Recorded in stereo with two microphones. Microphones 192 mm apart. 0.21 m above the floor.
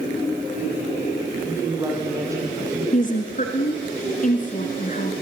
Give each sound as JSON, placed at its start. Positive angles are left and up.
{"t": 1.4, "sound": "a woman speaking", "side_deg": -15, "distance_m": 8.5}
{"t": 2.9, "sound": "a woman speaking", "side_deg": 40, "distance_m": 2.5}